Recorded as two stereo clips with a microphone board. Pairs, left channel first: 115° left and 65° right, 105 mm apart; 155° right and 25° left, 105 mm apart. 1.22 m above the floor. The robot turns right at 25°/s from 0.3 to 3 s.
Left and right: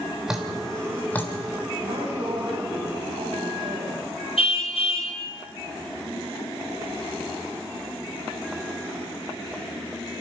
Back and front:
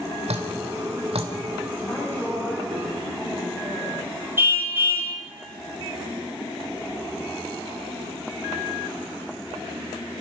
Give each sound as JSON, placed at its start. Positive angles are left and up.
{"t": 0.3, "sound": "dripping", "azimuth_deg": 15, "distance_m": 3.0}
{"t": 1.8, "sound": "a woman speaking", "azimuth_deg": -95, "distance_m": 7.5}
{"t": 4.4, "sound": "a car horn", "azimuth_deg": 90, "distance_m": 2.5}